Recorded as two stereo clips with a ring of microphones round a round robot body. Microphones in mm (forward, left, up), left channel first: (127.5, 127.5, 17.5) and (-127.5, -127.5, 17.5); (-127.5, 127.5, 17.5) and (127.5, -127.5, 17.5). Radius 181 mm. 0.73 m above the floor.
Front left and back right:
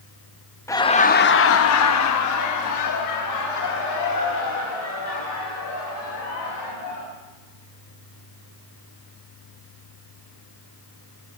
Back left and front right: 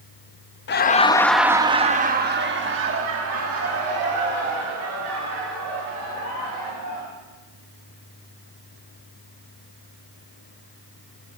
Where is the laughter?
120° left, 0.7 m; by 7.1 s straight ahead, 3.5 m.